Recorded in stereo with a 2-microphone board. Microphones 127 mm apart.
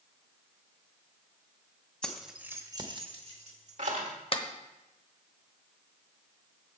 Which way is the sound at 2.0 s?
10° left (ahead or behind).